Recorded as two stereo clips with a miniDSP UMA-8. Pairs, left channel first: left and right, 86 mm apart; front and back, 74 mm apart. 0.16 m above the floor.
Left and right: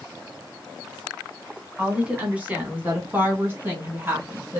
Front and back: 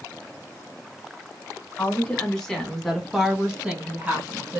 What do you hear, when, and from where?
1.8 s a woman speaking: 35° right, 1.6 m; by 4.6 s 135° right, 1.9 m